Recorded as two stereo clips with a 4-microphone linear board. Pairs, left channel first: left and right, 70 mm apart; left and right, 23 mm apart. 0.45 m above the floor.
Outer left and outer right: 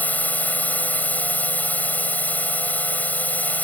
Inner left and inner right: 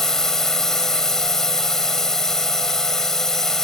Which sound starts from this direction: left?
A drone, at 0.0 s.